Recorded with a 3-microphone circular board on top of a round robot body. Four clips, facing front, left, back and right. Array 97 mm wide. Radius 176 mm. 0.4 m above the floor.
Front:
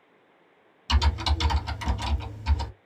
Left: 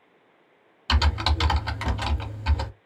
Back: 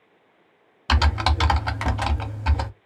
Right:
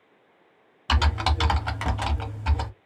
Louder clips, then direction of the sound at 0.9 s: Right 1 dB, back 6 dB; 160° right.